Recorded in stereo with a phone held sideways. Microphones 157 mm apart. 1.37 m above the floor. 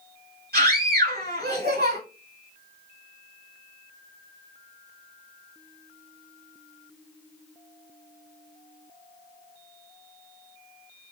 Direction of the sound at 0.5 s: 85° right.